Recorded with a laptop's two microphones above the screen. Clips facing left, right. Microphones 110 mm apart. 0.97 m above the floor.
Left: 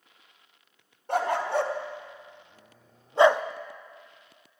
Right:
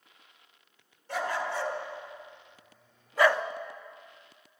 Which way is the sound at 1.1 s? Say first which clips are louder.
Left 6 dB; 50° left (ahead or behind).